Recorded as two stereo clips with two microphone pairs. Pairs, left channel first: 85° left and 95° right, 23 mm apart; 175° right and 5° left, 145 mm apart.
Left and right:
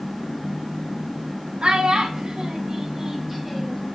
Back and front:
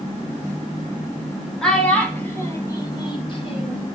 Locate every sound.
1.6 s a child speaking: 90° right, 1.4 m; by 3.9 s 170° left, 1.2 m